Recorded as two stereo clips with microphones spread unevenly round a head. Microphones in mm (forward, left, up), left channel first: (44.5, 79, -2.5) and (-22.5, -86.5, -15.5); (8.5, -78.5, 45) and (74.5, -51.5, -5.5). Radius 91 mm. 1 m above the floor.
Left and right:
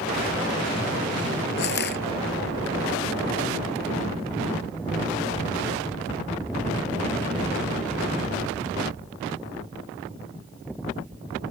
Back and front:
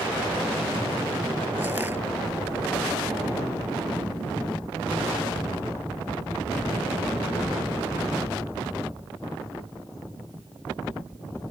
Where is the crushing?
105° left.